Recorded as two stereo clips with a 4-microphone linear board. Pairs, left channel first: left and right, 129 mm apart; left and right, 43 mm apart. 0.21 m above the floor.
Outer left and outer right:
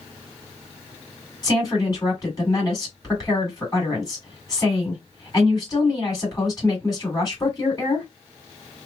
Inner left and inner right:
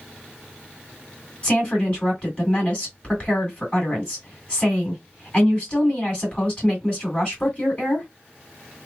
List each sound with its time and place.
1.4 s a woman speaking: 30° left (ahead or behind), 2 m